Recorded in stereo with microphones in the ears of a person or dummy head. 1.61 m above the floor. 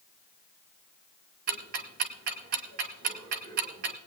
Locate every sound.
1.5 s ticking: 50° right (ahead or behind), 1.5 m